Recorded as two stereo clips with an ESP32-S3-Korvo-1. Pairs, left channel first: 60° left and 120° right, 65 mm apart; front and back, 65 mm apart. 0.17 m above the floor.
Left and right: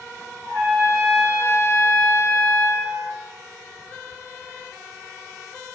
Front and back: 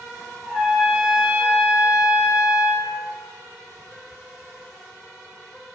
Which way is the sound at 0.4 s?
100° right.